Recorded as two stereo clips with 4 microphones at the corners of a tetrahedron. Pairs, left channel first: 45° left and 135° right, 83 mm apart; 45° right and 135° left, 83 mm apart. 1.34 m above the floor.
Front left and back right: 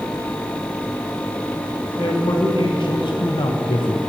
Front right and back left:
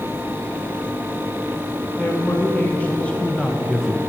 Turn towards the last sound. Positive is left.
turn(degrees=55)